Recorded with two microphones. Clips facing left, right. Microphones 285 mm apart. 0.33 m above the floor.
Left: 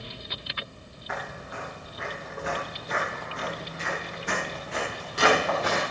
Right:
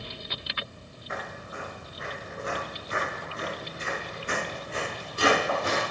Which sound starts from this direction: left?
Footsteps, at 1.1 s.